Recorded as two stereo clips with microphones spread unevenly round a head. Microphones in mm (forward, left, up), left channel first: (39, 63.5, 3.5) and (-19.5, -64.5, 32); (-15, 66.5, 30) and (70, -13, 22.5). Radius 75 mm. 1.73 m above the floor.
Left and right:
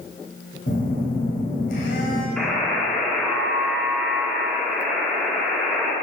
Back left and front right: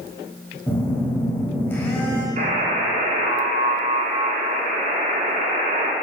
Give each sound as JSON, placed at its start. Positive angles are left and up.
{"t": 0.7, "sound": "a phone buzzing", "azimuth_deg": 80, "distance_m": 1.9}
{"t": 2.4, "sound": "a buzzer", "azimuth_deg": -25, "distance_m": 1.7}